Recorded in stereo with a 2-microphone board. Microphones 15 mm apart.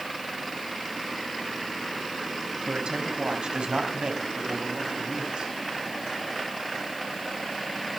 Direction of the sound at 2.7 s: 65° right (ahead or behind).